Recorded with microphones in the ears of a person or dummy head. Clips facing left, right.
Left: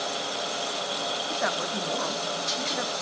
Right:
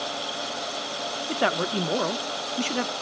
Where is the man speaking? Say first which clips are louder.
Right 7 dB; 45° right (ahead or behind), 0.5 m.